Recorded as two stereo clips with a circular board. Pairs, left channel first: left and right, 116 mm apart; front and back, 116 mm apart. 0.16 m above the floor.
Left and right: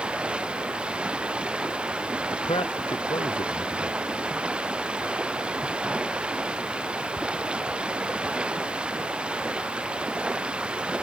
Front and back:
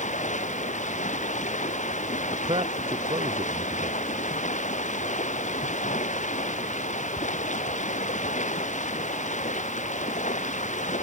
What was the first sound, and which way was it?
Running water, 10° right.